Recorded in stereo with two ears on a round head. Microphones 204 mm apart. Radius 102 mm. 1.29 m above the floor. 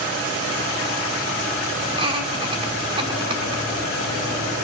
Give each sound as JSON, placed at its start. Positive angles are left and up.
{"t": 1.9, "sound": "laughter", "side_deg": -25, "distance_m": 3.5}